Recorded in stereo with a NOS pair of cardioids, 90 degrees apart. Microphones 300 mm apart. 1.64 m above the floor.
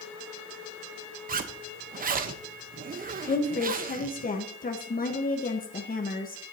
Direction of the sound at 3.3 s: 30° left.